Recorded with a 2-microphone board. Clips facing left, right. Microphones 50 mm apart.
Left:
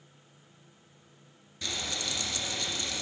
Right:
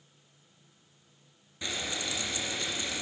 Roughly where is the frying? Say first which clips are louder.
Right 1 dB; centre.